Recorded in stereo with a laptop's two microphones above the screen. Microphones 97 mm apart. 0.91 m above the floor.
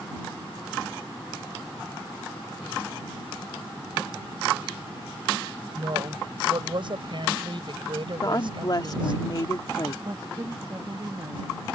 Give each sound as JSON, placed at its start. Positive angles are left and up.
{"t": 5.8, "sound": "a woman speaking", "side_deg": -60}
{"t": 8.2, "sound": "a woman speaking", "side_deg": 45}
{"t": 10.1, "sound": "a woman speaking", "side_deg": -45}